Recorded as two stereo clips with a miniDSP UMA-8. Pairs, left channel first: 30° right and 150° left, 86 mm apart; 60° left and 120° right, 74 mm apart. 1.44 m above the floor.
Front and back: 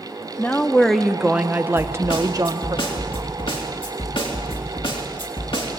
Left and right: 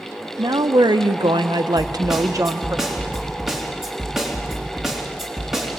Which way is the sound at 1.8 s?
35° right.